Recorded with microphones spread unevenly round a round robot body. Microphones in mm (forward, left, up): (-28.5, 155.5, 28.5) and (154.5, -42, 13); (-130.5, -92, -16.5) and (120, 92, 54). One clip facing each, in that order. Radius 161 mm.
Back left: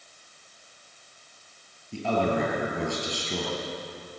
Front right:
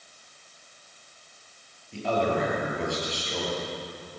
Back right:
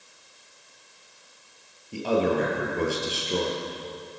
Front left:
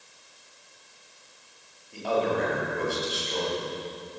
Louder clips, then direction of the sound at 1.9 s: Back left 1 dB, back right 3 dB; 160° left.